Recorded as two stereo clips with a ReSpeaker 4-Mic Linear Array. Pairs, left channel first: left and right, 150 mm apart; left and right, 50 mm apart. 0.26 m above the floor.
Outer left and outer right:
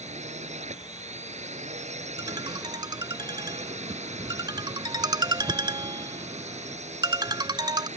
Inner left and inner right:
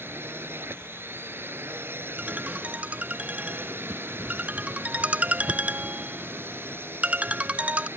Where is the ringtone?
30° right (ahead or behind).